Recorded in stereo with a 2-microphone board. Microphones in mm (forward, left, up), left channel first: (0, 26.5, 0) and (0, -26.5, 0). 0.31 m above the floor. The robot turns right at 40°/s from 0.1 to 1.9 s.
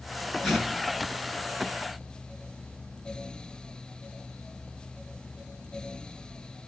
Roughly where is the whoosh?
Centre.